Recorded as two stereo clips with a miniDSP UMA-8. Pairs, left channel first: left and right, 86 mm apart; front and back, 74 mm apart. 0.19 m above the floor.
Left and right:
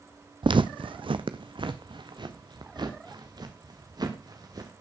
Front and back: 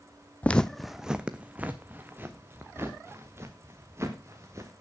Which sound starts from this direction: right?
Footsteps, at 0.4 s.